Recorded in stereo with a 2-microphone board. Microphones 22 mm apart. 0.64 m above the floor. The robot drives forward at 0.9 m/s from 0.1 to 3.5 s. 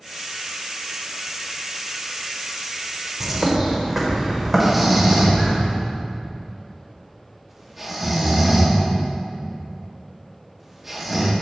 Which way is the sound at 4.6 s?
15° right (ahead or behind).